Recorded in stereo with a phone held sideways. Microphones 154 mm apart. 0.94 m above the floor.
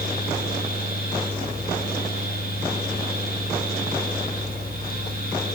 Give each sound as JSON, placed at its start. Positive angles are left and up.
{"t": 0.0, "sound": "a fan", "side_deg": 75, "distance_m": 9.0}